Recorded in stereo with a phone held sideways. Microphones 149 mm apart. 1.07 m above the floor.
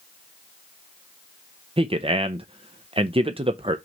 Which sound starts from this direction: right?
A man speaking, at 1.8 s.